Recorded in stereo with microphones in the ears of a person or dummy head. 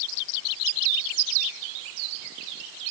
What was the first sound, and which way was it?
Only background noise.